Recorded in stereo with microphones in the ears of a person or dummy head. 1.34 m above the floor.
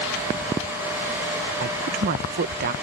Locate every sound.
1.6 s a woman speaking: 50° right (ahead or behind)